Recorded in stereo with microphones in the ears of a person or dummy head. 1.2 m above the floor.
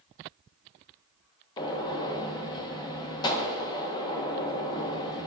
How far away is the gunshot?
About 1.2 m.